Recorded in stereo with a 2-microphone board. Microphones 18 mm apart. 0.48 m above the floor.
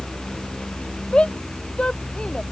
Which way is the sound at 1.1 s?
70° left (ahead or behind).